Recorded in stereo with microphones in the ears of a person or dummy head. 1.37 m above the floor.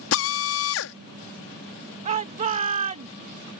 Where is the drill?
70° left (ahead or behind).